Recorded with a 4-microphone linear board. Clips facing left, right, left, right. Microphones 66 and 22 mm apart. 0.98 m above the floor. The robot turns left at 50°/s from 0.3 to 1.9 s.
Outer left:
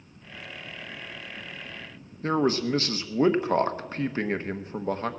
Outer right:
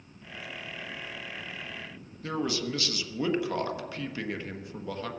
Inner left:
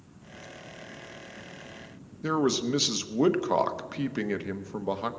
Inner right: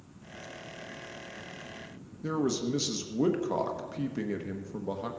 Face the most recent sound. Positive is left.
turn(degrees=35)  # may be behind; listen again after turning